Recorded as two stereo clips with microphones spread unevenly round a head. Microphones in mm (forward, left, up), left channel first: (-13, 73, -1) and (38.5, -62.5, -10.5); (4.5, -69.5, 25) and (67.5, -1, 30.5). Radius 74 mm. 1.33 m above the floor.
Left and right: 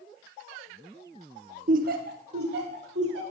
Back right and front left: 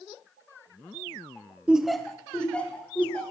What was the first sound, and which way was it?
Laughter, 30° right.